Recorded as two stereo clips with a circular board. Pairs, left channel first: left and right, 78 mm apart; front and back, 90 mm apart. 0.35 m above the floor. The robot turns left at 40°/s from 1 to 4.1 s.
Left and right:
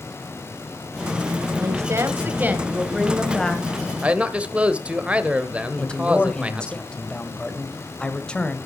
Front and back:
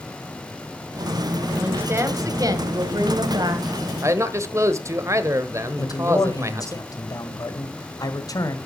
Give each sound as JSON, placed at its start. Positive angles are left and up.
{"t": 1.6, "sound": "a woman speaking", "azimuth_deg": -115, "distance_m": 1.9}
{"t": 4.0, "sound": "a man speaking", "azimuth_deg": -150, "distance_m": 1.2}
{"t": 5.8, "sound": "a man speaking", "azimuth_deg": 20, "distance_m": 1.6}